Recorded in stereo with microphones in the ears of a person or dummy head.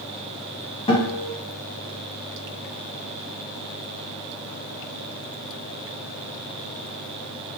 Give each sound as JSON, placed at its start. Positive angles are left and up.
{"t": 0.9, "sound": "a guitar", "side_deg": 30, "distance_m": 1.6}